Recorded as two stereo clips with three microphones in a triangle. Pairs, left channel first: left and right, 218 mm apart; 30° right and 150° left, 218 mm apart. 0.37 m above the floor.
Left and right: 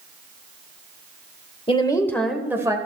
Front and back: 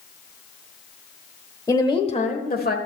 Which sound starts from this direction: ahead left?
A woman speaking, at 1.7 s.